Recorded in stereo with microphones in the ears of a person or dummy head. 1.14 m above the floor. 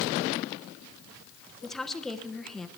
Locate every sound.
1.6 s a woman speaking: centre (ahead or behind), 1.0 m